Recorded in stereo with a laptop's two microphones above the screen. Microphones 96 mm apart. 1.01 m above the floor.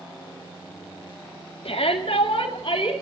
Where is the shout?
80° left, 1.9 m; by 2.9 s 55° left (ahead or behind), 3 m.